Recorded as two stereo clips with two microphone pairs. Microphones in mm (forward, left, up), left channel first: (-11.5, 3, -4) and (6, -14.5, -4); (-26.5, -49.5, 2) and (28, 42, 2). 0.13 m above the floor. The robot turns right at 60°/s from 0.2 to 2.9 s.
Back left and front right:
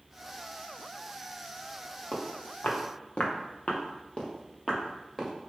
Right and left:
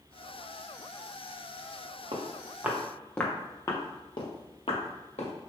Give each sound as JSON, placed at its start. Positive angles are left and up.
{"t": 2.1, "sound": "footsteps", "azimuth_deg": 90, "distance_m": 1.6}